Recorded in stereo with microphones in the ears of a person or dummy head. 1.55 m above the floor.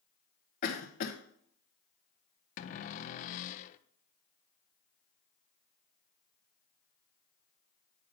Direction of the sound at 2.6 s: 40° left (ahead or behind).